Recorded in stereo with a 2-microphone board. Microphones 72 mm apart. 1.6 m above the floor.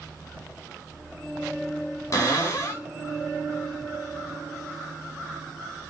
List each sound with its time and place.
2.1 s a cupboard door: 45° left (ahead or behind), 1.4 m